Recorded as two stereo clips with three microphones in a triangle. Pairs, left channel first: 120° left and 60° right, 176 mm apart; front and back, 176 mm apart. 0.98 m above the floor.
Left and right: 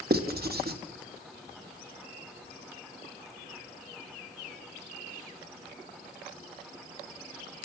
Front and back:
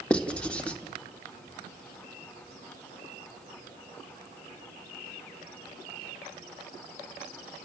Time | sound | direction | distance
0.1 | writing | 85° right | 1.6 m